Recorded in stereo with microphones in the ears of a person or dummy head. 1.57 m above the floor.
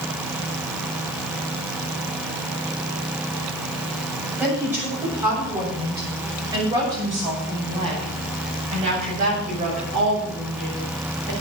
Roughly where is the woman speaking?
Centre.